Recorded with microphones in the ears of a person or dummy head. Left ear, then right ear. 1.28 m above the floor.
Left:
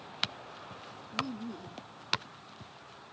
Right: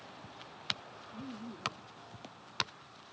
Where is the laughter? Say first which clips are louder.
Left 12 dB; 90° left.